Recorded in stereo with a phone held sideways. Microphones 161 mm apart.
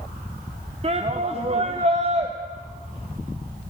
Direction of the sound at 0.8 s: 35° right (ahead or behind).